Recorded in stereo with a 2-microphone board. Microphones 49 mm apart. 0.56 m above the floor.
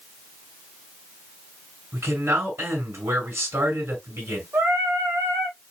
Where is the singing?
55° right (ahead or behind), 4 m.